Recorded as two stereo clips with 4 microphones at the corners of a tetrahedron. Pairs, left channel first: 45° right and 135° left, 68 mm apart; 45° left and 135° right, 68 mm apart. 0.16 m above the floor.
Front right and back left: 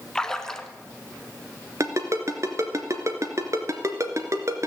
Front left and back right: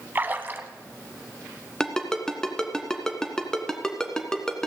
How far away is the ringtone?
About 1.6 m.